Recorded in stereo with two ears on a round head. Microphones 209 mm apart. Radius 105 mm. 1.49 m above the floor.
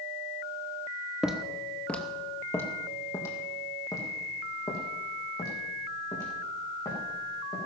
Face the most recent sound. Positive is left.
turn(degrees=20)  # may be behind; listen again after turning